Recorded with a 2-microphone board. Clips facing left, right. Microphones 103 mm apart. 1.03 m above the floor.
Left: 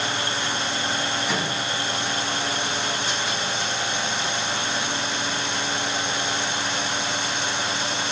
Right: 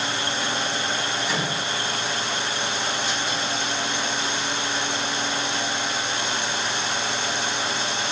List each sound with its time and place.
1.3 s a microwave: centre (ahead or behind), 5.5 m